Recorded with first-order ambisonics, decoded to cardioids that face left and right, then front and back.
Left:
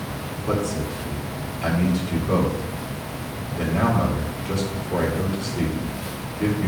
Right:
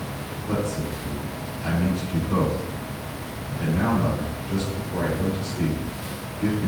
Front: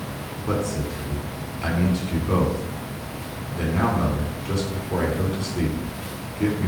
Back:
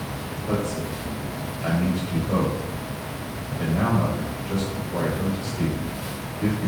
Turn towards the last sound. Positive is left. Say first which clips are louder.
# left 3 dB, front 1 dB
turn(degrees=40)